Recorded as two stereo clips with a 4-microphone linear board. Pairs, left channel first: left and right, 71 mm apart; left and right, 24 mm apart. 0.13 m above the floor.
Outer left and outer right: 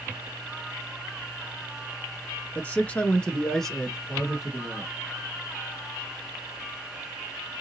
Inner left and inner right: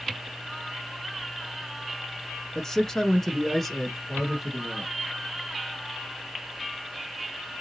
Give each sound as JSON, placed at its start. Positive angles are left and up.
{"t": 2.5, "sound": "a man speaking", "side_deg": 20, "distance_m": 1.1}